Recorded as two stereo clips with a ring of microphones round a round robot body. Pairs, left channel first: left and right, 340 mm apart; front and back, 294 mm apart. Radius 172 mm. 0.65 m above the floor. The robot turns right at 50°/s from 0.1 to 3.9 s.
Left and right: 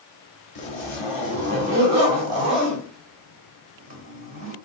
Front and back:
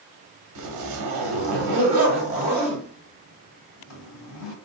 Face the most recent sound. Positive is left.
turn(degrees=-35)